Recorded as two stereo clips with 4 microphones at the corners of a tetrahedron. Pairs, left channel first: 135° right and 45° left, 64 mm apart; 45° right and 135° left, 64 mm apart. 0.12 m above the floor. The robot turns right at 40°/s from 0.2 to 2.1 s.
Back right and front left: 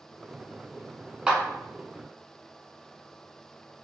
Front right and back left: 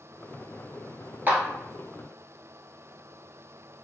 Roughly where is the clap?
Behind left.